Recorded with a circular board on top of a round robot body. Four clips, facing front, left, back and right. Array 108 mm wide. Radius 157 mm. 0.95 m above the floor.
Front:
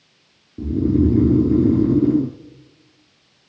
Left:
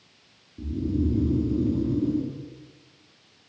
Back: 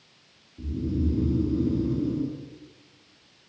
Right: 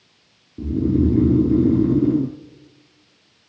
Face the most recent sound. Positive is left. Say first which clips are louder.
# right 8 dB, front 12 dB
turn(degrees=-35)